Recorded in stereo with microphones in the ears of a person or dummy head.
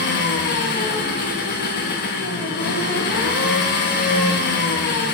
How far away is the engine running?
About 1.1 m.